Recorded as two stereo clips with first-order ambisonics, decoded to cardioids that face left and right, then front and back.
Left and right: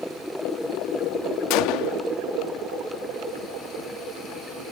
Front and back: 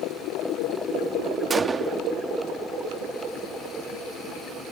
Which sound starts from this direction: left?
A gunshot, at 1.5 s.